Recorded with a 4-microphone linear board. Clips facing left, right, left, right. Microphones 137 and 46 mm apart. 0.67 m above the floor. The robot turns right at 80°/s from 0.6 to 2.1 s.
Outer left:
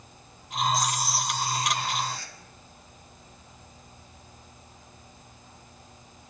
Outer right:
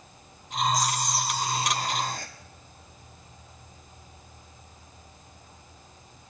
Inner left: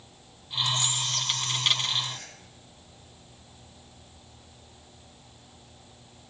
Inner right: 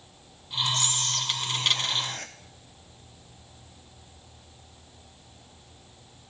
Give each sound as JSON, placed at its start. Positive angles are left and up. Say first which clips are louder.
{"t": 0.7, "sound": "whispering", "louder": "outer right 1 dB, even", "azimuth_deg": 145, "distance_m": 0.8}